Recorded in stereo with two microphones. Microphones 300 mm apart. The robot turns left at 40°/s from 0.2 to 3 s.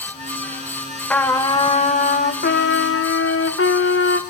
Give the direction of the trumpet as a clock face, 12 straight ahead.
6 o'clock.